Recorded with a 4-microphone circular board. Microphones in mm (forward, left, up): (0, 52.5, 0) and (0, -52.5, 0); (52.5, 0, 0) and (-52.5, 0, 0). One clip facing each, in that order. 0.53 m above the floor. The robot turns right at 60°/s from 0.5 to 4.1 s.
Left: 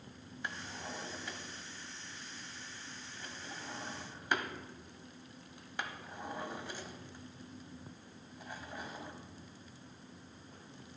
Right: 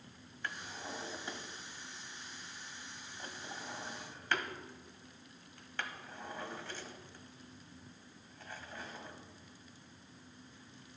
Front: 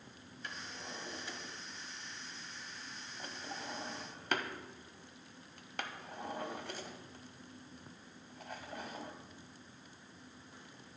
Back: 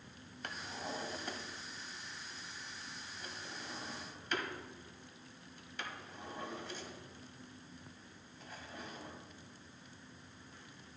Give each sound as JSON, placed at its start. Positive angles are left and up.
{"t": 0.4, "sound": "a drawer", "azimuth_deg": 160, "distance_m": 0.9}